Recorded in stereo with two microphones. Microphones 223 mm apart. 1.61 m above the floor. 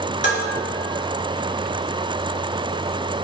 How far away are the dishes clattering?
About 3 m.